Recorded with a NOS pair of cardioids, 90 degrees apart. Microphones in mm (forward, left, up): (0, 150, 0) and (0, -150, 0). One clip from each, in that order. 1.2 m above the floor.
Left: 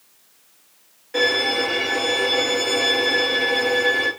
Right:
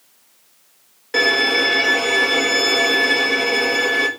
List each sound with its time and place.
1.1 s a violin: 55° right, 1.8 m